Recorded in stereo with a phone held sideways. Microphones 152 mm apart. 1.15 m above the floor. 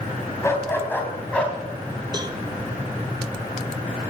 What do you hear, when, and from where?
0.4 s a dog barking: 20° left (ahead or behind), 3 m; by 1.6 s 5° left (ahead or behind), 3.5 m
2.1 s a cowbell: 25° right (ahead or behind), 0.8 m